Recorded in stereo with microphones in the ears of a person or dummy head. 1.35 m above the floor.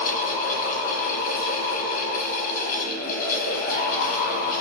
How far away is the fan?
About 1.0 m.